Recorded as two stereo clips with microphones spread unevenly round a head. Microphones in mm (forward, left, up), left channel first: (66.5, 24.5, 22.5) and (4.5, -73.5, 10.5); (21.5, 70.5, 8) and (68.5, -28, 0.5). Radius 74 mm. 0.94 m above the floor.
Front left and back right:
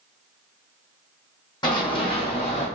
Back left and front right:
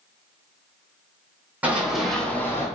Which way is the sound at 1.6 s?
15° left.